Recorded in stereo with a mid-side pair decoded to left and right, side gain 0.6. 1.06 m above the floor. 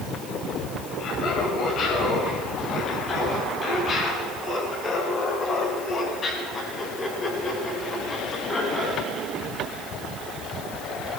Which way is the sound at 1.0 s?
50° left.